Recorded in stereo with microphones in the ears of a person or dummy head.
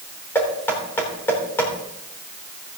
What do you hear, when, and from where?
0.3 s knocking: 10° left (ahead or behind), 3.5 m